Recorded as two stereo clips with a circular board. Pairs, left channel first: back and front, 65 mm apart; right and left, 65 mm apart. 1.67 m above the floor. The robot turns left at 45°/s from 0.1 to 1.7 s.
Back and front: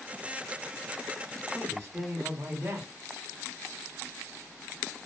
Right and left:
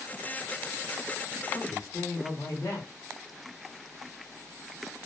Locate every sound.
1.5 s a man speaking: 55° right, 1.0 m; by 2.9 s 60° right, 1.0 m